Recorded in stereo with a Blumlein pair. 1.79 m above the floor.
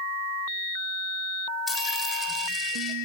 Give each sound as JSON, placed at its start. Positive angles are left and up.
{"t": 1.7, "sound": "a dropped coin", "azimuth_deg": 15, "distance_m": 3.5}